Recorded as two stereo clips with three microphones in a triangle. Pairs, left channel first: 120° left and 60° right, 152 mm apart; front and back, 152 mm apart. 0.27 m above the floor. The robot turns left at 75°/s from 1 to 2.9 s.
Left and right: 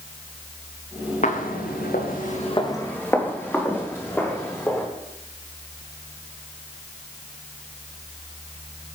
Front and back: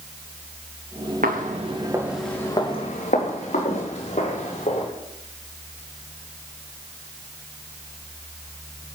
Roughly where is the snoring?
I don't hear snoring.